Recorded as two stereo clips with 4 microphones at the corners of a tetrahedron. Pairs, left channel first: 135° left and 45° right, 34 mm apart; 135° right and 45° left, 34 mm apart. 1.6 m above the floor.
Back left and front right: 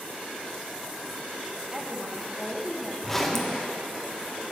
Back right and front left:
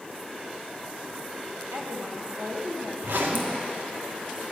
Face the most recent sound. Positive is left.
turn(degrees=55)